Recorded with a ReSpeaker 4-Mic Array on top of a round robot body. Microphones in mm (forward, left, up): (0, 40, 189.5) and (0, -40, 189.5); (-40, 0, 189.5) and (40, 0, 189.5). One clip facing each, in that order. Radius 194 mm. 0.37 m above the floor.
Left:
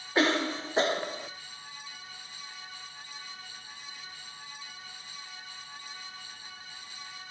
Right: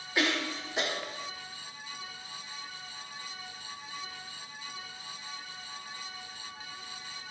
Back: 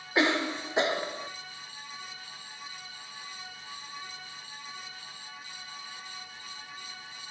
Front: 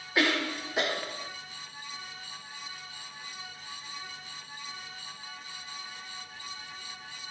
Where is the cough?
125° left, 1.0 m.